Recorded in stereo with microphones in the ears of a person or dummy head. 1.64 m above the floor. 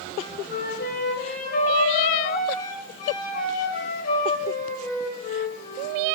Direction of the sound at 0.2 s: 55° left (ahead or behind).